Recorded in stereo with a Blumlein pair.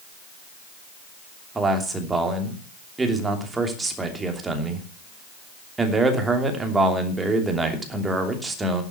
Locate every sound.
1.6 s a man speaking: 10° right, 3 m